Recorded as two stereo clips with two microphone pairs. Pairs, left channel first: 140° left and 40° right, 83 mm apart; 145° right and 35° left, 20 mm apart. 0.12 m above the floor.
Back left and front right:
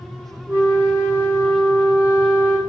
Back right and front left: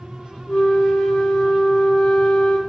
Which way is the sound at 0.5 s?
115° right.